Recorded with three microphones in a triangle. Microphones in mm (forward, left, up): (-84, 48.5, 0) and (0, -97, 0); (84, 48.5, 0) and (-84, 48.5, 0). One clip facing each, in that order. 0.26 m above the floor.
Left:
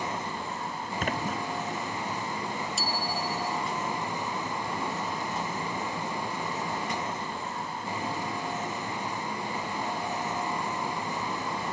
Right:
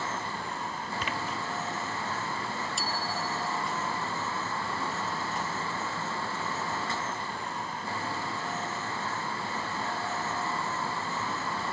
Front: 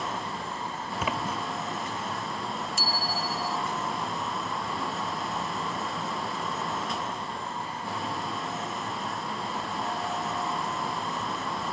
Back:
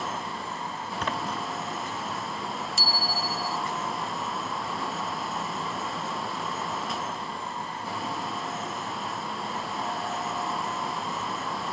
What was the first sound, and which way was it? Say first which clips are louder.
A splash: left 5 dB, front 1 dB; 85° left.